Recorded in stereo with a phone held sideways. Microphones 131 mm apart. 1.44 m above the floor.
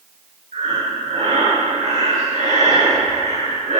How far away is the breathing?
About 5.5 m.